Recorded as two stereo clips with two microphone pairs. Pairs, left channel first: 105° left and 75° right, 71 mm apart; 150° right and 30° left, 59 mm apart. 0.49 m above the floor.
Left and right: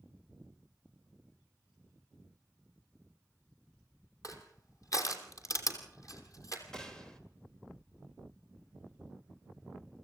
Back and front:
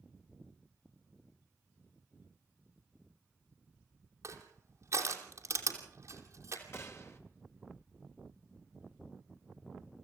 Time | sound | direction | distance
4.2 | crushing | 65° left | 3 m
6.7 | a gunshot | straight behind | 2.5 m